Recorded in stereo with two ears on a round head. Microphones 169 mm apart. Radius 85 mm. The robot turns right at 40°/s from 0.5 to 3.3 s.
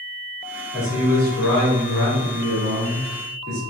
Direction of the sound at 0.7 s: 145° left.